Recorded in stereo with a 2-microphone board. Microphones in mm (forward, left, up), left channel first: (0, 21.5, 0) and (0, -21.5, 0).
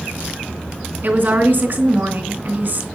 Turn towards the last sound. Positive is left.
turn(degrees=-55)  # may be behind; listen again after turning